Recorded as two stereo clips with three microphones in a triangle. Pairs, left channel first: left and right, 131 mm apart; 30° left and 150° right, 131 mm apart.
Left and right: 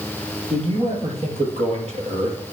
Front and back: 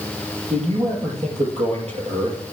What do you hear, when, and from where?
0.5 s a man speaking: 120° right, 6 m; by 2.4 s 115° right, 4 m